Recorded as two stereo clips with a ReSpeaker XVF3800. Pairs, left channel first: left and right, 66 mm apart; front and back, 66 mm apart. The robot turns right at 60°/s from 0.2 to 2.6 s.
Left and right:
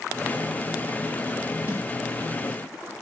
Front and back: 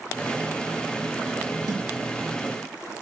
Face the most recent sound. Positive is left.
turn(degrees=-95)